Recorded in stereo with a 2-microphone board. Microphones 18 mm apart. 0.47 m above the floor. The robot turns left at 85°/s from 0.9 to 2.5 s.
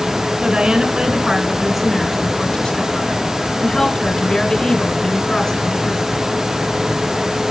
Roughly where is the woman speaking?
Right.